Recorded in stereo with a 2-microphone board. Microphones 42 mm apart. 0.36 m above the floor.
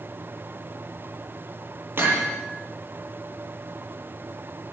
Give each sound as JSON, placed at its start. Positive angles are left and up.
{"t": 2.0, "sound": "hammering", "side_deg": -65, "distance_m": 8.5}